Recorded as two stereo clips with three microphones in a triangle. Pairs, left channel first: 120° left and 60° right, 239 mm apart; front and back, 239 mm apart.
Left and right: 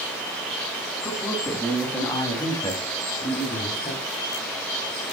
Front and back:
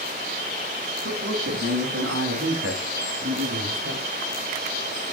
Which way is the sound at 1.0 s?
150° right.